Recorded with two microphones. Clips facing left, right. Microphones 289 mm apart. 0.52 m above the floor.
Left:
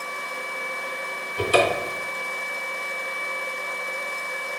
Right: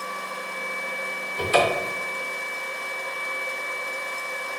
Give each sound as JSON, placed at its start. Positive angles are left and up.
{"t": 1.4, "sound": "a cupboard door", "side_deg": 40, "distance_m": 0.8}